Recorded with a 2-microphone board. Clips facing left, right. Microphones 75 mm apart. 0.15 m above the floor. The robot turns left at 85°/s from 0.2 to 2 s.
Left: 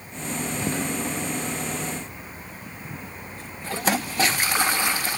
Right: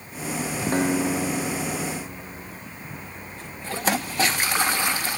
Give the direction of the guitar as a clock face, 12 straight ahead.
1 o'clock.